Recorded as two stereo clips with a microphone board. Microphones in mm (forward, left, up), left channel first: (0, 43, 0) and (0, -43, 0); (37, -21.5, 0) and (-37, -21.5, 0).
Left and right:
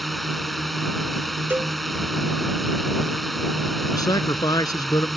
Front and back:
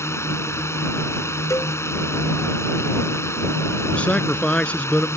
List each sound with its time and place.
0.0 s a drone: straight ahead
1.5 s a cowbell: 30° right
3.9 s a man speaking: 70° left